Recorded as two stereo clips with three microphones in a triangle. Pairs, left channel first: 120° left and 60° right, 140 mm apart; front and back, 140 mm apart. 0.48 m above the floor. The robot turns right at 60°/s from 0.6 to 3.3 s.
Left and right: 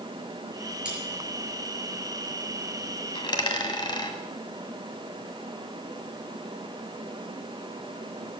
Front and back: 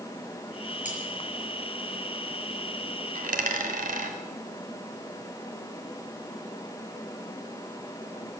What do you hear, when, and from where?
0.8 s cutlery clinking: 20° left, 6 m; by 1.0 s 30° left, 6 m
3.1 s a dropped coin: 170° left, 1.9 m; by 4.2 s straight behind, 1.9 m